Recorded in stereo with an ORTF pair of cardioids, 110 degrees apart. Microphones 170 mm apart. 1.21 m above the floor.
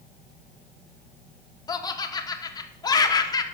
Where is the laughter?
20° left, 1.2 m.